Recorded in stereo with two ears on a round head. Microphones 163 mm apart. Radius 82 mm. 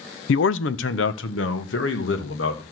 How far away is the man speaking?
About 0.5 m.